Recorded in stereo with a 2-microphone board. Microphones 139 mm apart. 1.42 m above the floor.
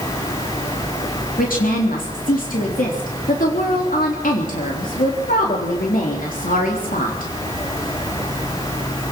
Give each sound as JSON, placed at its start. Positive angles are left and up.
{"t": 1.4, "sound": "a woman speaking", "side_deg": 85, "distance_m": 3.5}